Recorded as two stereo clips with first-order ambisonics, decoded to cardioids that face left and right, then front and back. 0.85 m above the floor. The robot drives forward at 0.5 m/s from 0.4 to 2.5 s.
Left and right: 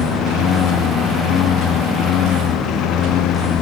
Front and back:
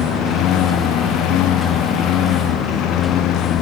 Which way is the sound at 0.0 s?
40° left.